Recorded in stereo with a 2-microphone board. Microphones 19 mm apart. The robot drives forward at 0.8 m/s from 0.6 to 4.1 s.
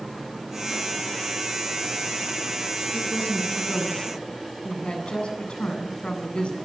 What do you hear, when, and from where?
2.9 s a woman speaking: 75° left (ahead or behind), 9 m; by 6.5 s 80° left, 9 m